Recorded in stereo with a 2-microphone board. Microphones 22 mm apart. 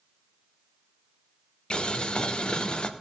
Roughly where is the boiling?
Left.